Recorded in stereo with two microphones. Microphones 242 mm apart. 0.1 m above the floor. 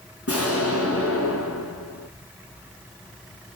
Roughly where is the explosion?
Left.